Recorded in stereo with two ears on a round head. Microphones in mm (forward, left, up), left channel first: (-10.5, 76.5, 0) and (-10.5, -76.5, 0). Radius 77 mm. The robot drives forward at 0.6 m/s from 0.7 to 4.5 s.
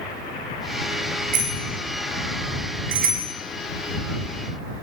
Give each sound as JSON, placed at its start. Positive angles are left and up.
{"t": 1.3, "sound": "a bicycle bell", "side_deg": -50, "distance_m": 7.0}